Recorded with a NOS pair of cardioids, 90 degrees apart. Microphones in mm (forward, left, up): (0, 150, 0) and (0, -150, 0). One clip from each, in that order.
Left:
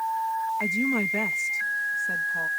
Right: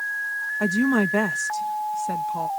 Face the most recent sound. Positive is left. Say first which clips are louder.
# right 7 dB
turn(degrees=-45)